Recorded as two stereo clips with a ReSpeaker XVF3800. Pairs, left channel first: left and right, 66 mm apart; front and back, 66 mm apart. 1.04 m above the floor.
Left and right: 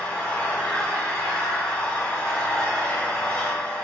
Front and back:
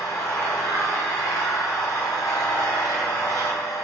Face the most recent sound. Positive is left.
turn(degrees=15)